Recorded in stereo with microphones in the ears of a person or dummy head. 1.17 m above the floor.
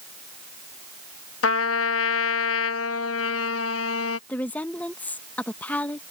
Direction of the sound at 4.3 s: 10° left (ahead or behind).